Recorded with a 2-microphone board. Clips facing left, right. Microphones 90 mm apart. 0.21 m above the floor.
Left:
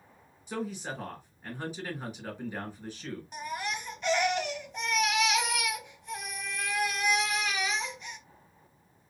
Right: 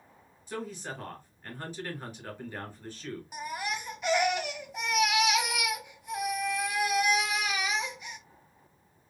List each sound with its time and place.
0.5 s a man speaking: 15° left (ahead or behind), 2 m
3.3 s a baby crying: 5° right (ahead or behind), 0.8 m